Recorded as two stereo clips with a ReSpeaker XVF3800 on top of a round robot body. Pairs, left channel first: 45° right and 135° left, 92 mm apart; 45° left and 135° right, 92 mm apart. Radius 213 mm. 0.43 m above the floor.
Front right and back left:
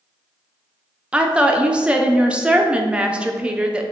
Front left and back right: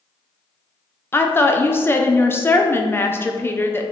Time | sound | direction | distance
1.1 | a woman speaking | 70° left | 0.7 m